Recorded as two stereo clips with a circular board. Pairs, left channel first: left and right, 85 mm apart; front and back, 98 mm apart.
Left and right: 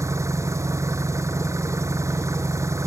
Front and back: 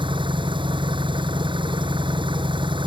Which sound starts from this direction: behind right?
An engine running, at 0.0 s.